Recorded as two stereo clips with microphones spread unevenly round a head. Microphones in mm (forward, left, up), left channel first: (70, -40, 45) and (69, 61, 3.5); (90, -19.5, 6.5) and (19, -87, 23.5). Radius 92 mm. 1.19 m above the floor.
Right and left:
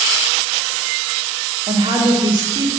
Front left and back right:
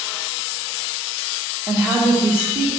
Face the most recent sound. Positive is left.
turn(degrees=130)